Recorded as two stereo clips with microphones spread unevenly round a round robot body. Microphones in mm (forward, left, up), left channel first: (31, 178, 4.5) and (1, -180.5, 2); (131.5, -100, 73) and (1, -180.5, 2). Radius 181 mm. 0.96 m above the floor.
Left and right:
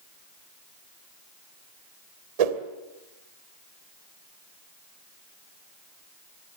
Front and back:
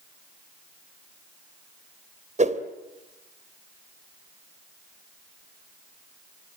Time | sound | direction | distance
2.4 | a whoosh | 100° right | 2.5 m